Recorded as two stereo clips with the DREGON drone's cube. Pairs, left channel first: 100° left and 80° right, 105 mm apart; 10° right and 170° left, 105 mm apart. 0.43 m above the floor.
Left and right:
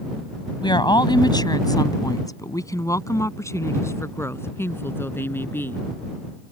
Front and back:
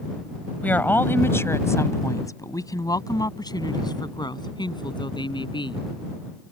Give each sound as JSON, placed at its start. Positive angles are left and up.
{"t": 0.6, "sound": "a woman speaking", "azimuth_deg": 65}